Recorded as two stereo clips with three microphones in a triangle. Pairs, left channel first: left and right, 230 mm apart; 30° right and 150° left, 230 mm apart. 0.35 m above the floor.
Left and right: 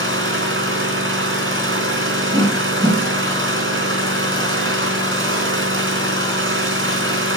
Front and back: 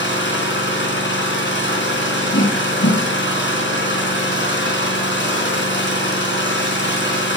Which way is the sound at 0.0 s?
65° right.